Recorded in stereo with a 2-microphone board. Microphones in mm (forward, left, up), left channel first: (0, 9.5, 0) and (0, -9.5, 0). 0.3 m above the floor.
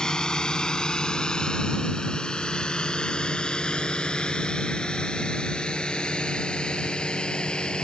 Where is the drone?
55° left (ahead or behind); by 7.8 s 75° left (ahead or behind).